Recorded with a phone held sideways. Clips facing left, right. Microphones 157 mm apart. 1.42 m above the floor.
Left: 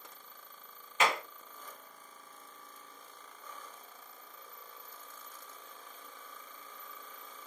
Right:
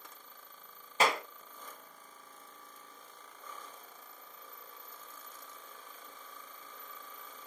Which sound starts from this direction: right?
A clap, at 1.0 s.